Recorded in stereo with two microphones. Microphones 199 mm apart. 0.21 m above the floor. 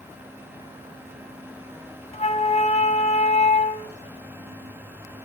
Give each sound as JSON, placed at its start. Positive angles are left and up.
{"t": 2.1, "sound": "a flute", "side_deg": 35, "distance_m": 1.6}